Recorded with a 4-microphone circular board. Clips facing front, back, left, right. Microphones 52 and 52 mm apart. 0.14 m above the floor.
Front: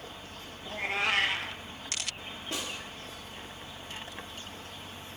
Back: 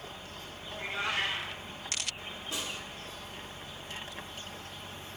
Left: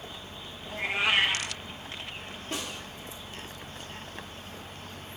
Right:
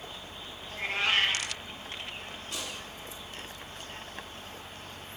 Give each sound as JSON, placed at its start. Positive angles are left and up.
{"t": 0.7, "sound": "a cat meowing", "azimuth_deg": 10, "distance_m": 0.8}
{"t": 2.5, "sound": "a snare drum", "azimuth_deg": 40, "distance_m": 2.0}